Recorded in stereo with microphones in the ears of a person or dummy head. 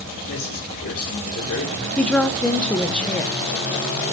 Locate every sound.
0.3 s a man speaking: 75° left (ahead or behind), 5 m
2.0 s a woman speaking: 5° left (ahead or behind), 0.9 m